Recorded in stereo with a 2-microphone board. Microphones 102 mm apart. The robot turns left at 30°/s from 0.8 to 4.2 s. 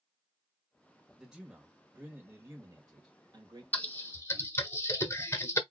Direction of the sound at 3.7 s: 15° left (ahead or behind).